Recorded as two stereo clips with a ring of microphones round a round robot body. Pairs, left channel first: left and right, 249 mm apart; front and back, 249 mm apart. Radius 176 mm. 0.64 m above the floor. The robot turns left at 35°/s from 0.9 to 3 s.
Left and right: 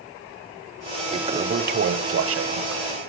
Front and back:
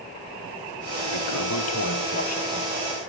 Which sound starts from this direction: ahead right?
A toilet flushing, at 1.1 s.